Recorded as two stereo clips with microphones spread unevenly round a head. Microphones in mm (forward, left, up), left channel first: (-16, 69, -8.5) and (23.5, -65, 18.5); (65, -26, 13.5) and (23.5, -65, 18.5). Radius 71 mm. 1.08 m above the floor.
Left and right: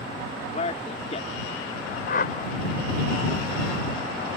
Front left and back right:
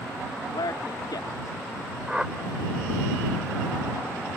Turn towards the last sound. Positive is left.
turn(degrees=140)